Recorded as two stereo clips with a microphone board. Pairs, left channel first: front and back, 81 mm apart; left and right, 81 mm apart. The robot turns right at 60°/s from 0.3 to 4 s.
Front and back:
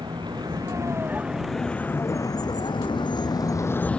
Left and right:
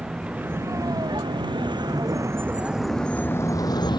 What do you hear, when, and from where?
0.0 s a vehicle: 165° right; by 4.0 s 80° left